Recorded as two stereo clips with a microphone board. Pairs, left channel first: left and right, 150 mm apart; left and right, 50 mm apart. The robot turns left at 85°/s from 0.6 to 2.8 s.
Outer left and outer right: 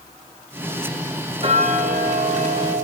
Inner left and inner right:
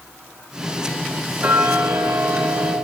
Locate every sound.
1.4 s ticking: 40° right, 1.5 m; by 2.8 s 155° right, 1.5 m